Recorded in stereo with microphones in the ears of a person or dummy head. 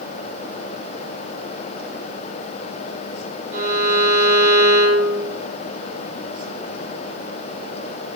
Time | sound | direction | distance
3.5 | a violin | 55° right (ahead or behind) | 4 m